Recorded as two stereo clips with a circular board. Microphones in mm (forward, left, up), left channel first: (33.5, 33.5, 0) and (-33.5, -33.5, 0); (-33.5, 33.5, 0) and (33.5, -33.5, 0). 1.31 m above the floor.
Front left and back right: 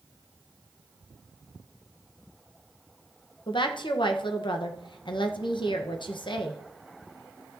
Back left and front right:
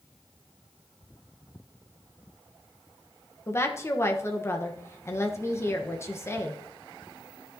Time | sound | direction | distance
3.5 | a woman speaking | 75° left | 1.1 m